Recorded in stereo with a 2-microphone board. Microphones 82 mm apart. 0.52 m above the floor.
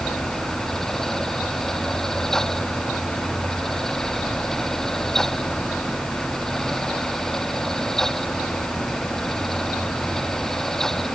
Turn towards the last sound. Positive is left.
No sound to turn to.